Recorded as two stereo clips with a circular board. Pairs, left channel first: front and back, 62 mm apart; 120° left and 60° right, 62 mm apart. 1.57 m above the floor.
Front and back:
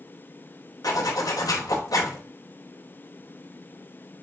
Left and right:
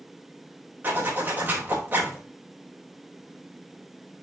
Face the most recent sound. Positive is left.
turn(degrees=-5)